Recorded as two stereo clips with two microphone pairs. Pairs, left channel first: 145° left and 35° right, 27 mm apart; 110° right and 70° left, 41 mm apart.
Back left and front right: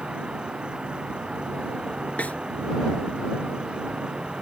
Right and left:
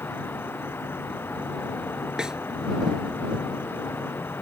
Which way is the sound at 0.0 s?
90° right.